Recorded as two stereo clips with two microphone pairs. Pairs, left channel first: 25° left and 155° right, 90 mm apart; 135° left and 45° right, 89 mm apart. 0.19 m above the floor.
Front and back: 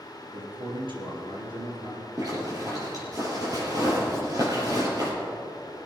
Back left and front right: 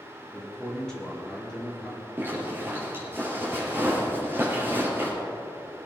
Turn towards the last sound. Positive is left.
turn(degrees=-110)